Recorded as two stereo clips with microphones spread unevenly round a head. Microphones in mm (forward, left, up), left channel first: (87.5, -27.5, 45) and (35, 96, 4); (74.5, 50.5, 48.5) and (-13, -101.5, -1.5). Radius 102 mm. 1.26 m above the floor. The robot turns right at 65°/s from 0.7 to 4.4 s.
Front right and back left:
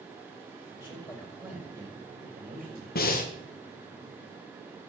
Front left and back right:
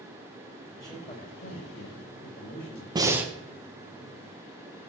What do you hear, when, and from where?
0.8 s a man speaking: 15° right, 6.5 m; by 2.9 s 120° left, 6.5 m
3.0 s breathing: 60° right, 1.6 m; by 3.3 s 35° right, 1.6 m